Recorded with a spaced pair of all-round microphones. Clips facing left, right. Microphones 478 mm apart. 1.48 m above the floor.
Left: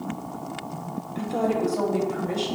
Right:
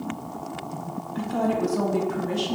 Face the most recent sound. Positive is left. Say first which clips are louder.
# even
turn(degrees=-35)  # may be behind; listen again after turning